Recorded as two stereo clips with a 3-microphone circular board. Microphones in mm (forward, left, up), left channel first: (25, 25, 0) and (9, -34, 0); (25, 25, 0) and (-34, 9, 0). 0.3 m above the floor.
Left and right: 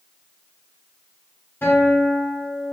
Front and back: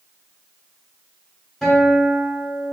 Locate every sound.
1.6 s a guitar: 95° left, 1.9 m